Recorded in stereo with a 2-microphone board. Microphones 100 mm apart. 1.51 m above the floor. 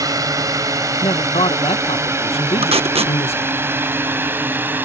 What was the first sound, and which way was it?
A drone, 35° right (ahead or behind).